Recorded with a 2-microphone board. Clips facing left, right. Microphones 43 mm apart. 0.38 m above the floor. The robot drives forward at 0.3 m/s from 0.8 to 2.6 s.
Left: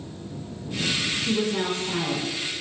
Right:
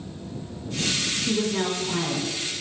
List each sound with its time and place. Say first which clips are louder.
1.3 s a woman speaking: right 1 dB; 15° left (ahead or behind), 0.8 m